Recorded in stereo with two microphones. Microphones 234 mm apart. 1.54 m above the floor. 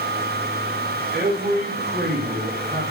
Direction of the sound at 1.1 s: 40° right (ahead or behind).